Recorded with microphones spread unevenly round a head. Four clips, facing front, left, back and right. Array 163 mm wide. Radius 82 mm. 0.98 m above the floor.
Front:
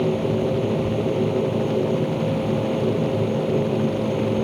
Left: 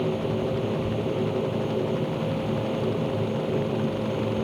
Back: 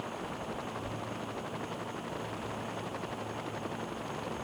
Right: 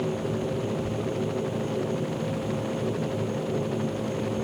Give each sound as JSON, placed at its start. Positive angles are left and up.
{"t": 0.0, "sound": "a machine running", "azimuth_deg": 5}